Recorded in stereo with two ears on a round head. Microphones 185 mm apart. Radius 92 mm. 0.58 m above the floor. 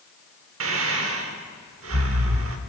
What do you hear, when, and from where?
0.6 s breathing: 70° right (ahead or behind), 1.2 m